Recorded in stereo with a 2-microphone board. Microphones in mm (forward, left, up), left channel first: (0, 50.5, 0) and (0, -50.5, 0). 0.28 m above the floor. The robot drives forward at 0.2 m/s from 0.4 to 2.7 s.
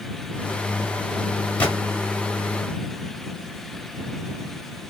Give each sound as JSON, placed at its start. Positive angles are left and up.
{"t": 1.6, "sound": "a gunshot", "side_deg": 15, "distance_m": 1.0}